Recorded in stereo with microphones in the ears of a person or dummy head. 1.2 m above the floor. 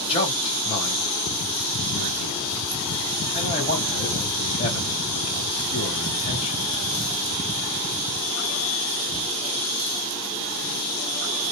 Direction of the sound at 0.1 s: 25° left (ahead or behind).